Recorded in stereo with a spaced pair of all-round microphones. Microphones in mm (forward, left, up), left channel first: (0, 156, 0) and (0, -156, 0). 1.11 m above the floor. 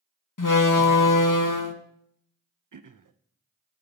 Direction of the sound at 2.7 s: 75° right (ahead or behind).